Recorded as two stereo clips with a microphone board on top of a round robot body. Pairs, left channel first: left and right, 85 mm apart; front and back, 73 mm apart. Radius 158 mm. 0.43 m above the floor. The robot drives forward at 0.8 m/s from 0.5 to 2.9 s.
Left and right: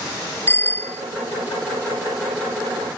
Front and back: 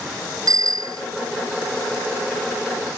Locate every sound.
0.5 s a bicycle bell: 155° left; by 1.0 s 160° left